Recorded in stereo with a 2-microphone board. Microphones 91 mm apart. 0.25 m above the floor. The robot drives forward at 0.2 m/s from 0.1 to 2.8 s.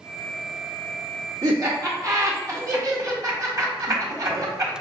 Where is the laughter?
40° right (ahead or behind), 1.7 m.